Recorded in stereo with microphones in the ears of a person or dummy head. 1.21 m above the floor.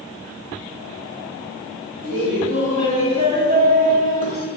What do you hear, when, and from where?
2.0 s laughter: 45° right (ahead or behind), 1.6 m